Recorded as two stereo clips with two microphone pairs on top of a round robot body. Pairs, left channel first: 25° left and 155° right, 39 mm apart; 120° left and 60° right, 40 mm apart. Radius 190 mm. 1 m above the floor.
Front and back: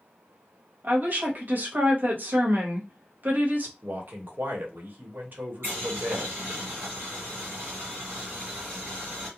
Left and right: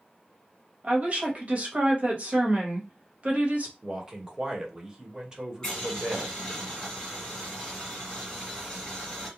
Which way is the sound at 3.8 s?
130° right.